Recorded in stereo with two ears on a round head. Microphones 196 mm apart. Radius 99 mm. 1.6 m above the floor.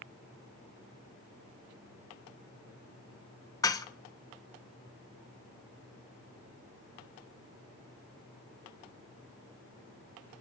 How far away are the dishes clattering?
About 0.6 m.